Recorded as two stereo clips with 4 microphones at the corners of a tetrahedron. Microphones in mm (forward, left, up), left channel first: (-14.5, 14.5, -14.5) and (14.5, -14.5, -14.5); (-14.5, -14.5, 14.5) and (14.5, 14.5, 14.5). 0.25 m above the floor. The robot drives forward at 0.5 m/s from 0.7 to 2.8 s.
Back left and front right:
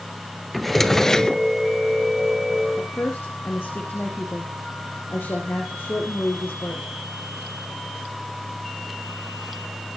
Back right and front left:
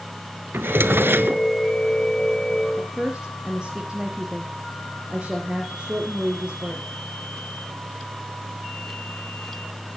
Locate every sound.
0.5 s a drawer: 50° left, 1.1 m; by 1.4 s 65° left, 1.0 m
2.8 s a woman speaking: 110° left, 5.5 m